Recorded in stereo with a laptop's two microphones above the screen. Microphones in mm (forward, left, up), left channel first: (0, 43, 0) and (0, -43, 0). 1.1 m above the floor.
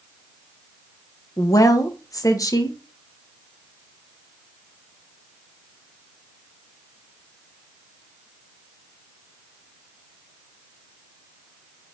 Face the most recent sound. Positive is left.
turn(degrees=45)  # may be behind; listen again after turning